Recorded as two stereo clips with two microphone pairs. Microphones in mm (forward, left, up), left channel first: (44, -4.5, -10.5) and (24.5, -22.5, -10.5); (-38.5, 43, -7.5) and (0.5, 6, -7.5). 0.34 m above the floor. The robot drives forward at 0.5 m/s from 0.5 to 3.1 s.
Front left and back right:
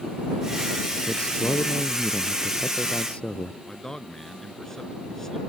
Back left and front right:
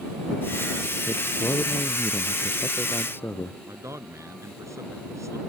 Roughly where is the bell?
No bell in this recording.